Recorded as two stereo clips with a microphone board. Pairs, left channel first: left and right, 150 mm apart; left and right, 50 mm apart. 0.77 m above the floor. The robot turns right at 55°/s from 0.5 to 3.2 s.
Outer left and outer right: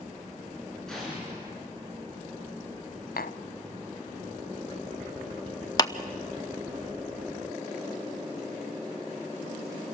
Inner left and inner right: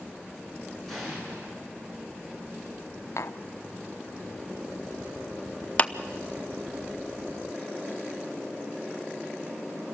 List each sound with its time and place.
0.9 s an explosion: 175° left, 7.5 m; by 1.5 s 150° right, 7.5 m
3.2 s tapping: 85° left, 0.6 m
5.8 s a clap: 25° left (ahead or behind), 0.8 m